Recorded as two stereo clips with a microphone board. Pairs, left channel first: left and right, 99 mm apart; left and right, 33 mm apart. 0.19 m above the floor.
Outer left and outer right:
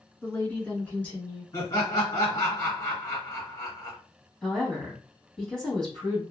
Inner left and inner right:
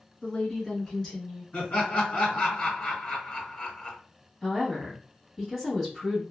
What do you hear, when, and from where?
0.2 s a woman speaking: 20° left (ahead or behind), 1.6 m; by 1.4 s 10° left (ahead or behind), 2 m
1.5 s laughter: 35° left (ahead or behind), 2 m
4.4 s a woman speaking: 5° left (ahead or behind), 1.4 m